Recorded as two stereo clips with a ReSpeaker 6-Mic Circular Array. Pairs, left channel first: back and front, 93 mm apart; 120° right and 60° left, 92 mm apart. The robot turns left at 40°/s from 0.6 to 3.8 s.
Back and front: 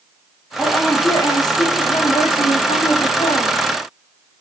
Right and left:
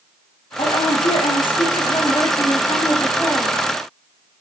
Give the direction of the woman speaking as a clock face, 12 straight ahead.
3 o'clock.